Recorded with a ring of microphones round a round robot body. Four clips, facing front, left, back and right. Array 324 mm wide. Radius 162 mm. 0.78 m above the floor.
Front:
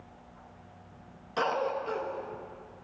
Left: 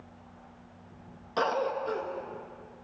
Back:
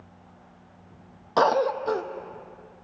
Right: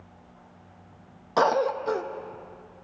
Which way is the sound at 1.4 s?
145° right.